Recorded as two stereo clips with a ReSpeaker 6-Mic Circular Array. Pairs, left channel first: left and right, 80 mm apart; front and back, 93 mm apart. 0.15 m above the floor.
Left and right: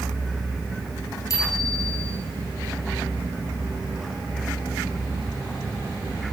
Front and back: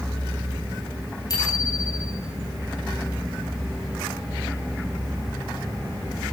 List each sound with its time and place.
1.3 s a bicycle bell: 45° left, 7 m